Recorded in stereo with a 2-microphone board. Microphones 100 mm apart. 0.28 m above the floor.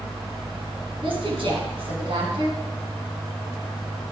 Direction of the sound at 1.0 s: 60° right (ahead or behind).